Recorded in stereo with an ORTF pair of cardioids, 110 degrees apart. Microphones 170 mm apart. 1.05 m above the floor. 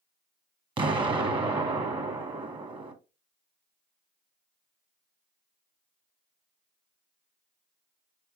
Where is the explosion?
25° right, 1.0 m.